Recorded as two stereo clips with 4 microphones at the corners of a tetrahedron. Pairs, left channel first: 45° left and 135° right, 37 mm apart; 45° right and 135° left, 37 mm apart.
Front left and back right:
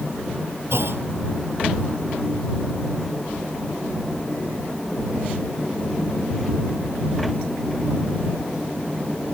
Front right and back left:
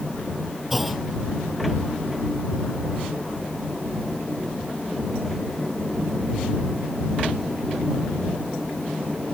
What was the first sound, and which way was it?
A clunk, 135° right.